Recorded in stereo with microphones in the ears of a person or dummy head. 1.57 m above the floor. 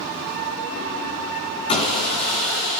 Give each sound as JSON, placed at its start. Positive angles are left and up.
{"t": 1.7, "sound": "sawing", "side_deg": 20, "distance_m": 2.5}